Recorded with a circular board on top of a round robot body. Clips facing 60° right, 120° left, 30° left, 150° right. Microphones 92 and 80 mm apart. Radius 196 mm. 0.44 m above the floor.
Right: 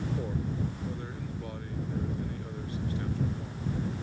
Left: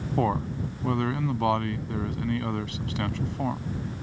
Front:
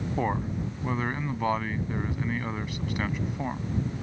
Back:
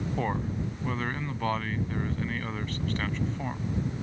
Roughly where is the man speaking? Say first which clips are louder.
Left 7 dB, front 3 dB; left.